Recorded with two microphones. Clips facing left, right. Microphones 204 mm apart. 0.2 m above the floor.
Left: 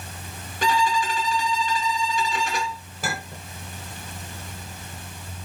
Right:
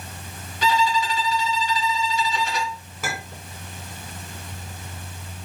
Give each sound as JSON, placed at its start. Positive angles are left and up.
{"t": 0.6, "sound": "a violin", "side_deg": 50, "distance_m": 1.2}
{"t": 3.0, "sound": "a clink", "side_deg": 35, "distance_m": 1.7}